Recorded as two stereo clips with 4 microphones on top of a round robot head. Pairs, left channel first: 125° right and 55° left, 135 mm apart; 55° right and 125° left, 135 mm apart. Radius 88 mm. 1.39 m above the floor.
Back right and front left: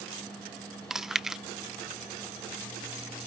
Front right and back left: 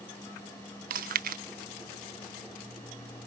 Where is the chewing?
145° left.